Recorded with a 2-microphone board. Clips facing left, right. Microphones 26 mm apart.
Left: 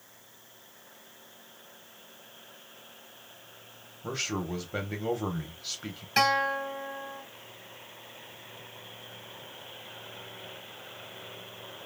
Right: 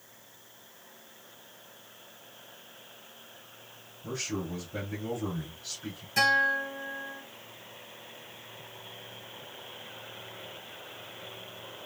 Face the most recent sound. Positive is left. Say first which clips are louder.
# right 1 dB
turn(degrees=55)  # may be behind; listen again after turning